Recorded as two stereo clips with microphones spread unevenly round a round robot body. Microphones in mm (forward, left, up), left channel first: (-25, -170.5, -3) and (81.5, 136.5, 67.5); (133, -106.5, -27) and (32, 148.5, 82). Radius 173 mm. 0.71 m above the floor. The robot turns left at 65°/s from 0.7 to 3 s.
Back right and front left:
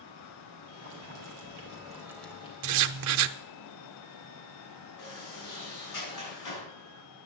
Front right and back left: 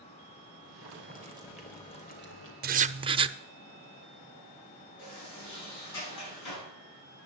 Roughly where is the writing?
Left.